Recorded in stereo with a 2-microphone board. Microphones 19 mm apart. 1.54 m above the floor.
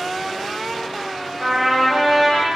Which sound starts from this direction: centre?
A trumpet, at 1.4 s.